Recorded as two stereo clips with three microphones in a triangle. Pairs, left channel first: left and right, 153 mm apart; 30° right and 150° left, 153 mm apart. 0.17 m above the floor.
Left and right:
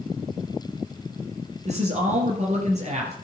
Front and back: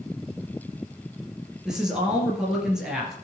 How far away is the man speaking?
About 3 m.